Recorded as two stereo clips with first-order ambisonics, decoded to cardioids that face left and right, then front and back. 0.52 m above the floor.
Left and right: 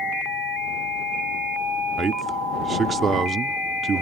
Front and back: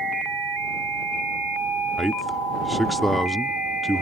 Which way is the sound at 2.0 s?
90° right.